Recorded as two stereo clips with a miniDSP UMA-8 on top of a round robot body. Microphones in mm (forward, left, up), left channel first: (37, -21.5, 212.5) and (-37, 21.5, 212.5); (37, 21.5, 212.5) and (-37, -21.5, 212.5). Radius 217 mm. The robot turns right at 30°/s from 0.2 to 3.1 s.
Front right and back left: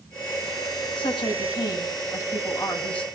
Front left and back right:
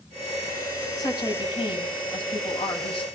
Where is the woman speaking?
15° right, 4 m; by 3.1 s 50° left, 4 m.